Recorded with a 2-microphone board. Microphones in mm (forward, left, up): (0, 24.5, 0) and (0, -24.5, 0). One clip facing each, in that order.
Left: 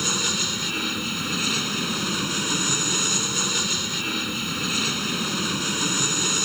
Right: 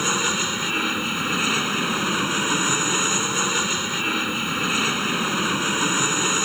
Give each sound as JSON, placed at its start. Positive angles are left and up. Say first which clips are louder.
{"t": 0.0, "sound": "an aircraft", "louder": "right 4 dB", "side_deg": -30}